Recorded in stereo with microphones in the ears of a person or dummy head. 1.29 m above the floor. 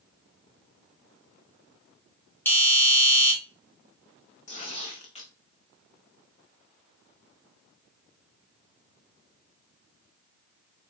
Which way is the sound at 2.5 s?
10° left (ahead or behind).